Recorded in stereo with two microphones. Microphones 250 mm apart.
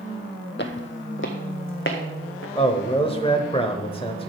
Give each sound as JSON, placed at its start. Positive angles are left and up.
{"t": 0.6, "sound": "footsteps", "side_deg": 50, "distance_m": 0.8}
{"t": 2.5, "sound": "a man speaking", "side_deg": 25, "distance_m": 0.9}